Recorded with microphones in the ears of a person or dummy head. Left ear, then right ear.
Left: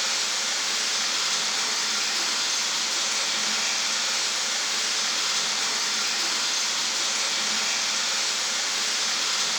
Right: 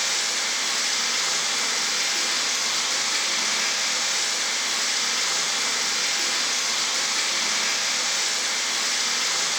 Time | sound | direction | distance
0.0 | running water | 35° right (ahead or behind) | 2.5 m